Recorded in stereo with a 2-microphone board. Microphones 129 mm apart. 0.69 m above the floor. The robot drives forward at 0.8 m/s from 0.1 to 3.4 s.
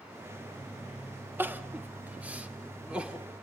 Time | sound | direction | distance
1.4 | crying | 15° right (ahead or behind) | 1.4 m